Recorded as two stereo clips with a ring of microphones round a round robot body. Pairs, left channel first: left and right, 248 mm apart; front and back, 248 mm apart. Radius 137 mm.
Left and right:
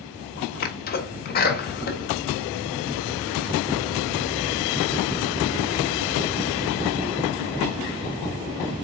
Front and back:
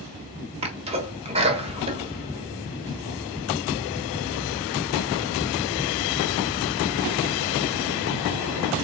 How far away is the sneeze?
About 1.2 m.